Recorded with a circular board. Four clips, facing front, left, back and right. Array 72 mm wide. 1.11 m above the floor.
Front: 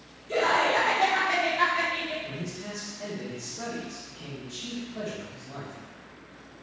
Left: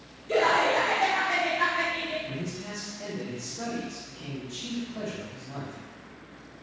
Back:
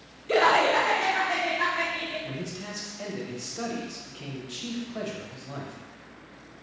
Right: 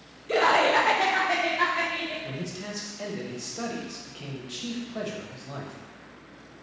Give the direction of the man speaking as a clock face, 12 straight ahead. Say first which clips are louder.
Even, back 1 dB; 4 o'clock.